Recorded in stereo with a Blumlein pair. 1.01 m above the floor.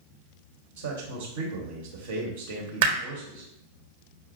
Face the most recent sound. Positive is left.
turn(degrees=-50)